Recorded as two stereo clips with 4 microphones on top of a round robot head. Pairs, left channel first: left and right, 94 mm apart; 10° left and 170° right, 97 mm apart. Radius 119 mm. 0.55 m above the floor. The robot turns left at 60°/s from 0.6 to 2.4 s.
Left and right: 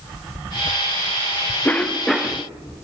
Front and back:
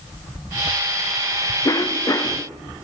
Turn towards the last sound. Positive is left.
turn(degrees=-15)